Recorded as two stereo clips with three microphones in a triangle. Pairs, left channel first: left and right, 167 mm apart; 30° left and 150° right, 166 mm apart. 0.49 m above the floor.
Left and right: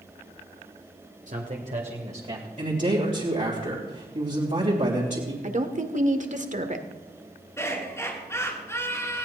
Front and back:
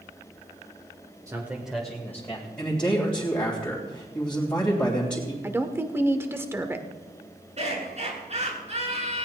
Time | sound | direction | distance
1.3 | a man speaking | 85° right | 1.6 m
2.6 | a man speaking | 55° right | 3 m
5.4 | a woman speaking | 80° right | 1.4 m
7.6 | laughter | 165° left | 7 m